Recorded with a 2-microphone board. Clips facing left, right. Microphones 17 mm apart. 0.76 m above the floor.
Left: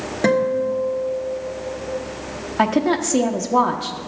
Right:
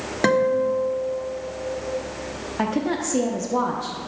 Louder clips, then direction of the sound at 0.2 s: Left 1 dB; 15° right (ahead or behind).